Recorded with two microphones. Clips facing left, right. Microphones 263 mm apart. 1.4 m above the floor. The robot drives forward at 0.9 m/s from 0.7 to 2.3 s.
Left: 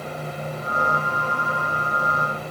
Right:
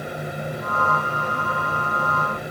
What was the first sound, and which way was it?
Only background noise.